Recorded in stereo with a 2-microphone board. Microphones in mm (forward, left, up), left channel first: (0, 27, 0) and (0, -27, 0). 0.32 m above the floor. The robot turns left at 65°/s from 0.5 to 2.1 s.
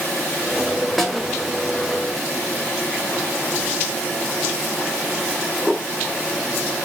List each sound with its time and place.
1.0 s a snare drum: centre (ahead or behind), 0.9 m; by 1.2 s 10° left (ahead or behind), 0.9 m